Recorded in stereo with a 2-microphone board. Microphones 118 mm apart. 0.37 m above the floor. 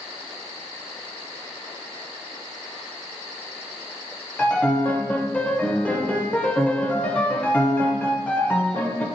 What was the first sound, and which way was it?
A piano, 10° left (ahead or behind).